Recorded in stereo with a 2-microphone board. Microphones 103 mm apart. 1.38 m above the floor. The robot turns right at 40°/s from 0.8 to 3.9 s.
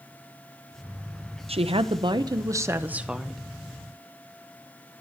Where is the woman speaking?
75° right, 0.8 m; by 3.4 s 5° left, 0.8 m.